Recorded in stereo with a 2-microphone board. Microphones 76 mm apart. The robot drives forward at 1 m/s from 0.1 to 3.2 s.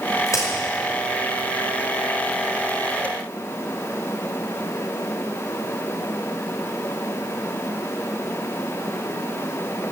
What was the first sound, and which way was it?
A crack, 45° left (ahead or behind).